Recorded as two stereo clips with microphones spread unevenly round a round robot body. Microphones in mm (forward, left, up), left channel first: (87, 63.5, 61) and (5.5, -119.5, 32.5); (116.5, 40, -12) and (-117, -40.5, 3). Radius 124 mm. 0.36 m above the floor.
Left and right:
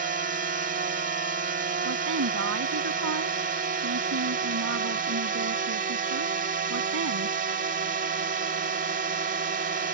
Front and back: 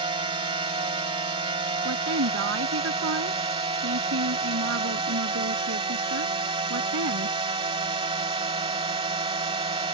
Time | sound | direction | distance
0.0 | a drone | 95° right | ?
1.9 | a woman speaking | 125° right | ?